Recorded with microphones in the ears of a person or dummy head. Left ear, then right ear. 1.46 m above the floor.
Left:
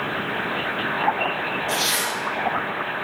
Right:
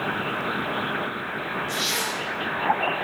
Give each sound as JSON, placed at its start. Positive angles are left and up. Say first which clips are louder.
{"t": 1.7, "sound": "a zipper", "louder": "left 3 dB", "side_deg": 10, "distance_m": 3.0}